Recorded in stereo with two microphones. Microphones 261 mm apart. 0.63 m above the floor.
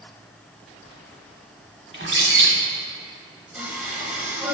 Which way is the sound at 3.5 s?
5° right (ahead or behind).